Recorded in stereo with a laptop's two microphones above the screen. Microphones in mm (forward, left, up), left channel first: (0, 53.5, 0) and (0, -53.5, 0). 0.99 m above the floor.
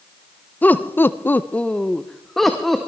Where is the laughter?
15° left (ahead or behind), 0.8 m; by 2.9 s centre (ahead or behind), 1.7 m.